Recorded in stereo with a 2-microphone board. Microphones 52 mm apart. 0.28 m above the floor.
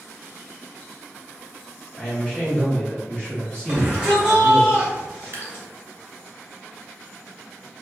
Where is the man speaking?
20° left (ahead or behind), 1.3 m.